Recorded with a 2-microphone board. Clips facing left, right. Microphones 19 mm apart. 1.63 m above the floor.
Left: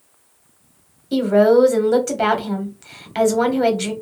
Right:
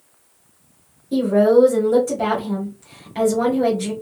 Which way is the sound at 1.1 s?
55° left (ahead or behind).